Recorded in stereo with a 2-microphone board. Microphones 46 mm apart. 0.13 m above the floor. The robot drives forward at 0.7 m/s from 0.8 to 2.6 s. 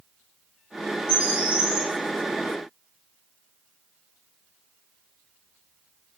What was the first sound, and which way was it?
A bird, 20° right (ahead or behind).